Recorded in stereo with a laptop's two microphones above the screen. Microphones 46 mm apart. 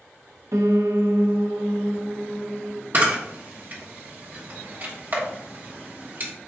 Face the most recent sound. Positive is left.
turn(degrees=-40)  # may be behind; listen again after turning